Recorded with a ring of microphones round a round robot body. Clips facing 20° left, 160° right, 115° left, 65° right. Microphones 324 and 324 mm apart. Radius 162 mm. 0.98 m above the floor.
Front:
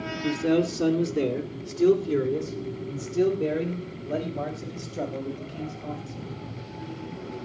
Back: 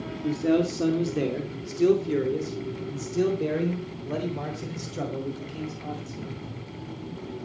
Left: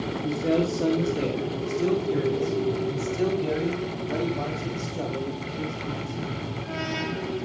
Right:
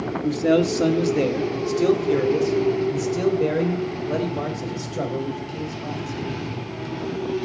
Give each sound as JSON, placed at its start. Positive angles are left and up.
{"t": 0.2, "sound": "a man speaking", "azimuth_deg": -55, "distance_m": 2.5}